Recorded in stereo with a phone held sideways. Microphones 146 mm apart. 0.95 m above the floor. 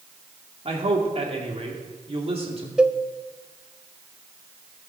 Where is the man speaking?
45° right (ahead or behind), 2.5 m.